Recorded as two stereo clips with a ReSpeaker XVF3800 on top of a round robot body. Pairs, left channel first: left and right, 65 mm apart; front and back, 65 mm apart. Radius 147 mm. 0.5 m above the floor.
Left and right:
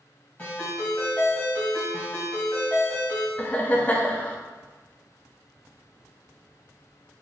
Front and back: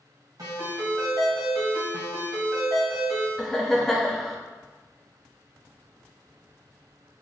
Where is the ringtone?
155° left, 1.9 m.